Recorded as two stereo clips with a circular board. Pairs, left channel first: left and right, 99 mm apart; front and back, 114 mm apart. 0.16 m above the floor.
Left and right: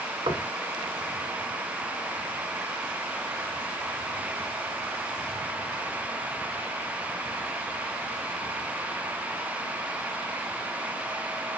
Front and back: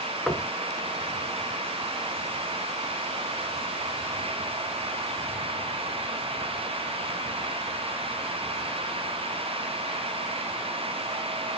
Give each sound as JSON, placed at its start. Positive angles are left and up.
{"t": 0.3, "sound": "knocking", "azimuth_deg": -90, "distance_m": 1.5}